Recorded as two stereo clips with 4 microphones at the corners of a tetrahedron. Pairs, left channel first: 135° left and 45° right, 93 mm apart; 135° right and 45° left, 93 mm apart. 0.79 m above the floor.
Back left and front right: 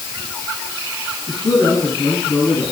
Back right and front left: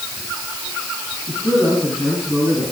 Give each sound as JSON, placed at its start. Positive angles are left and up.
{"t": 1.3, "sound": "a man speaking", "azimuth_deg": -155, "distance_m": 8.5}